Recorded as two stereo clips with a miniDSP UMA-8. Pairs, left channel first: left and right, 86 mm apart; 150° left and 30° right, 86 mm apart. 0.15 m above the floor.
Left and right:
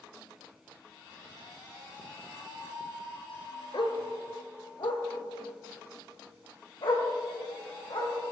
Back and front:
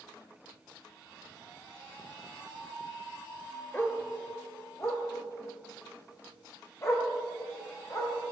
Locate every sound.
3.7 s a dog barking: 85° left, 1.2 m; by 8.2 s 95° left, 4 m